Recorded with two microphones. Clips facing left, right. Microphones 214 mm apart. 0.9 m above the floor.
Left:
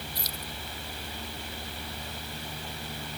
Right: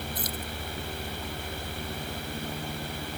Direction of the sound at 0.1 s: 50° right (ahead or behind).